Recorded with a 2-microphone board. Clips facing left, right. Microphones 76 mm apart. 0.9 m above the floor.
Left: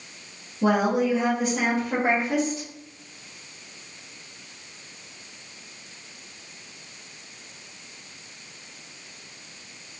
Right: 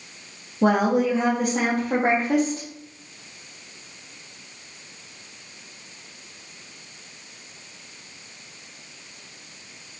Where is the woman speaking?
55° right (ahead or behind), 1.8 m.